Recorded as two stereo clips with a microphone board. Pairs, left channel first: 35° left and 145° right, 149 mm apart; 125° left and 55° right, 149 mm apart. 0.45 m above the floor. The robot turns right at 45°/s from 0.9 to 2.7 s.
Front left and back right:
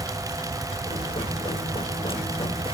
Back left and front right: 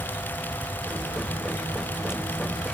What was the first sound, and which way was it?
Only background noise.